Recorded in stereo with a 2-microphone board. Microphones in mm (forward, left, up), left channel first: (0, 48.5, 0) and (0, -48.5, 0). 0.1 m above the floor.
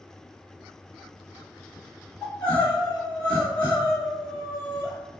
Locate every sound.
2.2 s crying: 15° left (ahead or behind), 1.9 m